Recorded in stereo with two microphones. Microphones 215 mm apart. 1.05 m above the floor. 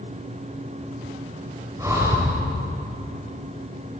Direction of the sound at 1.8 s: 15° right (ahead or behind).